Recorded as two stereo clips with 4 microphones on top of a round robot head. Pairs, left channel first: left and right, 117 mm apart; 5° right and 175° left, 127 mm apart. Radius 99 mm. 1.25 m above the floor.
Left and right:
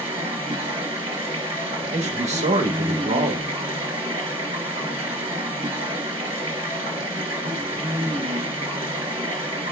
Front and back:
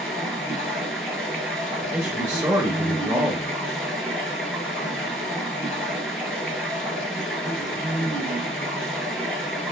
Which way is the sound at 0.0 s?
95° right.